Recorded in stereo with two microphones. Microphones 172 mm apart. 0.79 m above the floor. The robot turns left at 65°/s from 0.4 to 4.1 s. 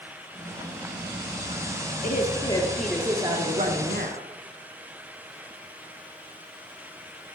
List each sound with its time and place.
2.0 s a woman speaking: 55° left, 1.7 m; by 4.3 s 75° right, 1.7 m